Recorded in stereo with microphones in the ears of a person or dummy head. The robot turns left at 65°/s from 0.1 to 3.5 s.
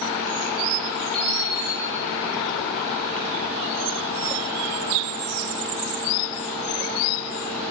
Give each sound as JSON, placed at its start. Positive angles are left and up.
{"t": 1.1, "sound": "an alarm clock", "azimuth_deg": 175, "distance_m": 1.7}